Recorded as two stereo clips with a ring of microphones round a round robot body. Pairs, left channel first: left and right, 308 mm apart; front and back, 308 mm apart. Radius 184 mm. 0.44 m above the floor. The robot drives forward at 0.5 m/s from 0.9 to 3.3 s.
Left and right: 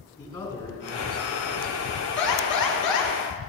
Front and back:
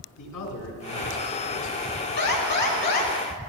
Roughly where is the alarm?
Ahead left.